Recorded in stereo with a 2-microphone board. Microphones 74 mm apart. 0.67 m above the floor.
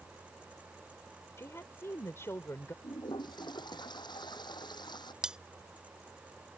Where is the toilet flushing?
75° left (ahead or behind).